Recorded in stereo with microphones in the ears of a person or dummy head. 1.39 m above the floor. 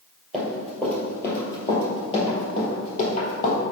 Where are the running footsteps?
Centre (ahead or behind), 2 m; by 3.6 s 45° left (ahead or behind), 2.5 m.